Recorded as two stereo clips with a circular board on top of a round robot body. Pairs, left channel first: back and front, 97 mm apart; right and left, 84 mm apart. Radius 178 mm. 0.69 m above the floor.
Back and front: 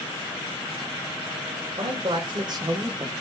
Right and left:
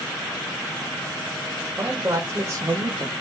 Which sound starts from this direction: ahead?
A man speaking, at 1.7 s.